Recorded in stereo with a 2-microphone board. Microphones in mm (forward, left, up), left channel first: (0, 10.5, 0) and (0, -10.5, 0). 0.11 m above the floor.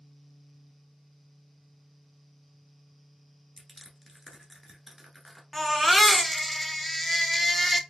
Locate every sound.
3.6 s crushing: centre (ahead or behind), 1.1 m
5.5 s a baby crying: 5° left (ahead or behind), 0.8 m